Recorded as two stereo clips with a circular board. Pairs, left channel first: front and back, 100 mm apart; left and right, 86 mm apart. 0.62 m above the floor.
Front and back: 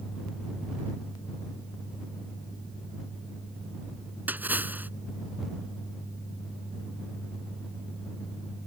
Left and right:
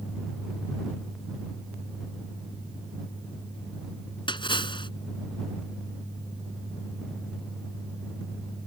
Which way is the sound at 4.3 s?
110° left.